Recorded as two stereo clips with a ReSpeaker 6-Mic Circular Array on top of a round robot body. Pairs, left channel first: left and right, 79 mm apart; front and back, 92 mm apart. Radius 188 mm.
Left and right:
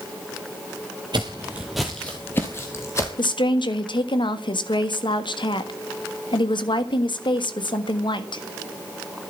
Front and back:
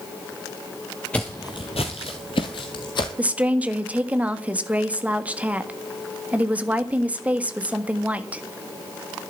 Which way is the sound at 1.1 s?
75° right.